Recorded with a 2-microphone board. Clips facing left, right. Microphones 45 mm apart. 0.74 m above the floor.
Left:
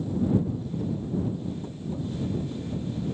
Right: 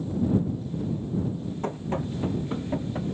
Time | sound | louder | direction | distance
1.6 | running footsteps | right 4 dB | 70° right (ahead or behind) | ?